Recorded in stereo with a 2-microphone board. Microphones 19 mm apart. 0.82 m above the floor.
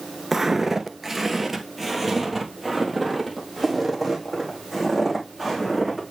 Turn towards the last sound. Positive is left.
turn(degrees=5)  # may be behind; listen again after turning